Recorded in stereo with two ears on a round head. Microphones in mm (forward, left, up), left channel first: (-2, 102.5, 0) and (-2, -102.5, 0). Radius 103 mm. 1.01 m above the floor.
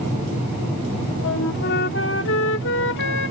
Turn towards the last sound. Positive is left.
turn(degrees=55)  # may be behind; listen again after turning